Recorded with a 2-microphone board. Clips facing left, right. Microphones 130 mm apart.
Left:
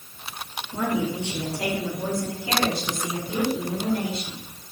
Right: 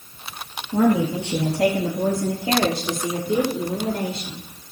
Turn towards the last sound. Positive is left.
turn(degrees=-55)  # may be behind; listen again after turning